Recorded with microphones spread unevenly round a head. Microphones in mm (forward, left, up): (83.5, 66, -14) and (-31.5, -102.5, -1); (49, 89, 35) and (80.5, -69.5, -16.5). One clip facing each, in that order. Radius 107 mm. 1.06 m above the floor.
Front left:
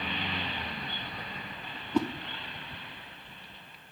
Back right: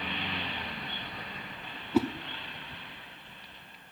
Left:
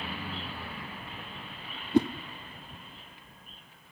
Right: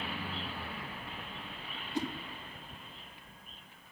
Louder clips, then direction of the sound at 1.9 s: Back right 2 dB, left 12 dB; 150° left.